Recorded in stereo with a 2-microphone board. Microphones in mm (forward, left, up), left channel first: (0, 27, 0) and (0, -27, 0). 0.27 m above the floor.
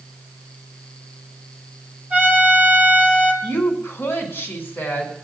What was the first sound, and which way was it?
A trumpet, 25° right (ahead or behind).